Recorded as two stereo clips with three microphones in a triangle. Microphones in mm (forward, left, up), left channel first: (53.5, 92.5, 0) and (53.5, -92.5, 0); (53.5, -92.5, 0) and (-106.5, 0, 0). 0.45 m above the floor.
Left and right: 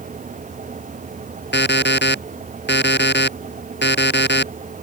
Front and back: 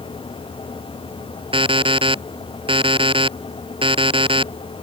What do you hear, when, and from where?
1.5 s an alarm clock: 90° left